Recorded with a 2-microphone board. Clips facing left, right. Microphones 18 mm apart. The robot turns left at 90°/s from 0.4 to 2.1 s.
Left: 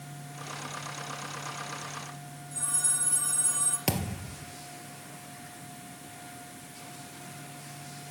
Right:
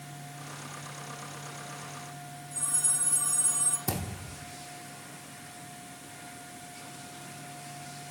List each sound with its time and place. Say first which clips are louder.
2.5 s a phone ringing: even; 5° left (ahead or behind), 4 m
3.9 s a thud: left 3 dB; 65° left (ahead or behind), 1.8 m